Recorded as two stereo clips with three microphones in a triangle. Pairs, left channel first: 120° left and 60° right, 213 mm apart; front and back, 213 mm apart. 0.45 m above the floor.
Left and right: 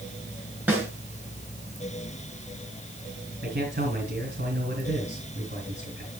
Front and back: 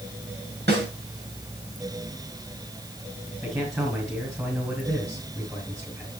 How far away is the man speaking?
About 5 m.